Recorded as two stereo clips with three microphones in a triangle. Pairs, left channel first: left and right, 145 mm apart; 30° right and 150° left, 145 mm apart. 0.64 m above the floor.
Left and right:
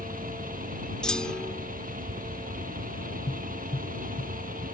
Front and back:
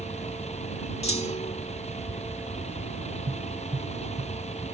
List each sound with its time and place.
0.0 s a vehicle: 70° right
1.0 s a clunk: 5° left
3.3 s tapping: 110° left